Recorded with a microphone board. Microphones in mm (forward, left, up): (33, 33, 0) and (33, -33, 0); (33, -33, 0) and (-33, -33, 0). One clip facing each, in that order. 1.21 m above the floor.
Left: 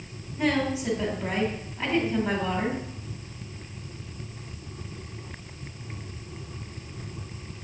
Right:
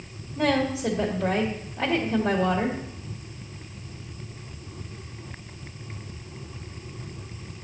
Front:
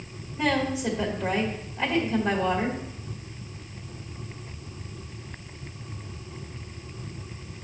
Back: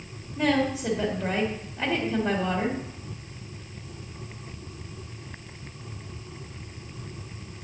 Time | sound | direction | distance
0.4 | a woman speaking | 100° right | 1.9 m